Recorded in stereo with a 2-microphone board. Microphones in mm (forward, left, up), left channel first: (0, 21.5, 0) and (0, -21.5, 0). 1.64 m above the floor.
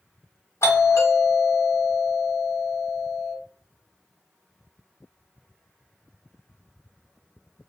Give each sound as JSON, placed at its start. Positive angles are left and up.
{"t": 0.6, "sound": "a doorbell", "side_deg": 70, "distance_m": 1.6}